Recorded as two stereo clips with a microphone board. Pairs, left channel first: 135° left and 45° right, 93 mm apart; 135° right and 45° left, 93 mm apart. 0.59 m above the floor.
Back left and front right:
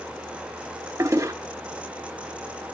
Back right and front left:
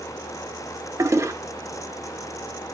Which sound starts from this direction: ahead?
A toilet flushing, at 1.0 s.